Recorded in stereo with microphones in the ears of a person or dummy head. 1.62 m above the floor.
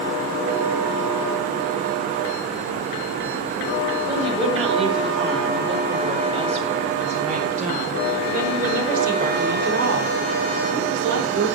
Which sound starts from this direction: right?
A woman speaking, at 4.1 s.